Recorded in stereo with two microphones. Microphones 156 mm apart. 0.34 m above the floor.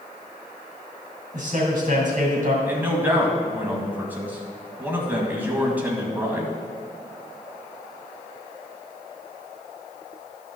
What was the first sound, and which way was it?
A man speaking, 55° right (ahead or behind).